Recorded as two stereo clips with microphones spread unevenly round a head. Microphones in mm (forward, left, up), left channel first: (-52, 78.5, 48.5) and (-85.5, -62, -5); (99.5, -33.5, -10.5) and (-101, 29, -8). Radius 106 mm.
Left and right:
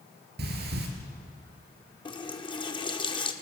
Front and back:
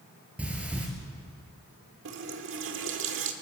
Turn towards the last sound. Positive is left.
turn(degrees=130)